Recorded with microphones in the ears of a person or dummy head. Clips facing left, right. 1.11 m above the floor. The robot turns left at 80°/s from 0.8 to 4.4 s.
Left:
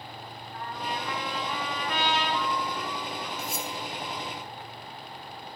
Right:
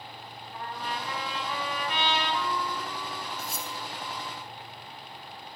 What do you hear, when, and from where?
0.5 s a trumpet: 135° right, 4.5 m; by 3.3 s 25° left, 4.5 m
3.4 s cutlery clinking: 75° left (ahead or behind), 1.8 m